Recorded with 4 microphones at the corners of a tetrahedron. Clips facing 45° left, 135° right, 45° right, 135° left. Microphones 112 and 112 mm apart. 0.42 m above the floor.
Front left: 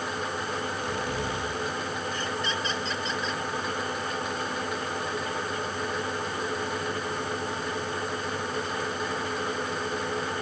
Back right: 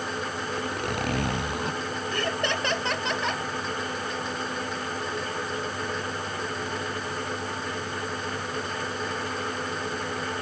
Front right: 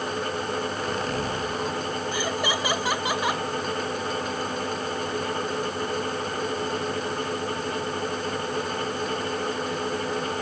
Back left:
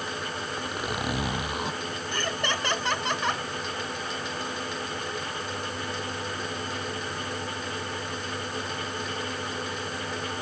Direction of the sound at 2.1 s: 125° right.